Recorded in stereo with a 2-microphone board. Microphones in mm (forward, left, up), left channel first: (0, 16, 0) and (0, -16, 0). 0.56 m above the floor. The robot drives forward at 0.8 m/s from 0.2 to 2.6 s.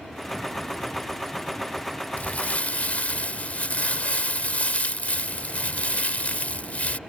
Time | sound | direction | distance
2.2 | crumpling | 55° left (ahead or behind) | ?